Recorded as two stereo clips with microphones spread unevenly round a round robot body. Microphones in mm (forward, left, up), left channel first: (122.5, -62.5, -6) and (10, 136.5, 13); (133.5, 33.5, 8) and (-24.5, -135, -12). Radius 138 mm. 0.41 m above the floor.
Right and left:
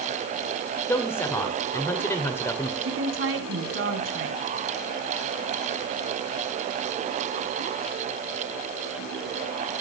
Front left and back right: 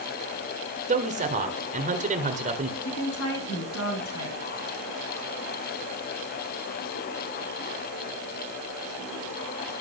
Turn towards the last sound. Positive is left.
turn(degrees=90)